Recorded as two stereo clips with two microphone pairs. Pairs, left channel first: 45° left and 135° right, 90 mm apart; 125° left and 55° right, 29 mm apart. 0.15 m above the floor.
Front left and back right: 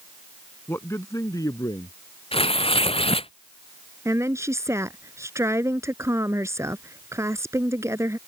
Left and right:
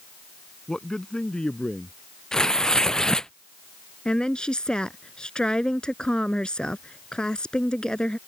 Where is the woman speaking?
175° left.